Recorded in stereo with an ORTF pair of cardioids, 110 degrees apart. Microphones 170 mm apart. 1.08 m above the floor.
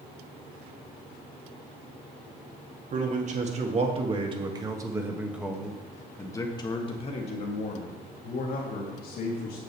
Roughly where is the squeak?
I don't hear a squeak.